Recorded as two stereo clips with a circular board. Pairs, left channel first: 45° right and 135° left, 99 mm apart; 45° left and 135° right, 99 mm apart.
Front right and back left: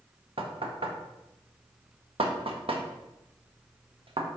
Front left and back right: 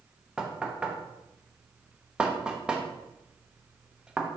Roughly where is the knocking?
Behind left.